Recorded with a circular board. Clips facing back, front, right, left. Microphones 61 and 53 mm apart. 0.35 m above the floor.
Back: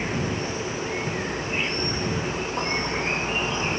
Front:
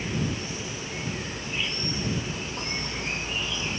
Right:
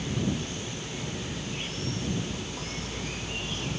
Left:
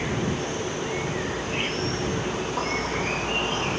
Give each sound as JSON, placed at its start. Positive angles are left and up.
{"t": 0.0, "sound": "an insect", "azimuth_deg": 125}